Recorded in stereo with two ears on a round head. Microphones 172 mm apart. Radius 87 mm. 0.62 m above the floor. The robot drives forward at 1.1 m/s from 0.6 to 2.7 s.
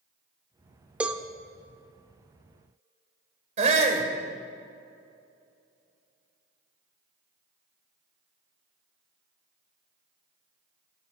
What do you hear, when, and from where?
1.0 s a cowbell: 5° right (ahead or behind), 0.8 m; by 1.2 s 10° right (ahead or behind), 0.6 m
3.6 s a shout: 40° right (ahead or behind), 2.5 m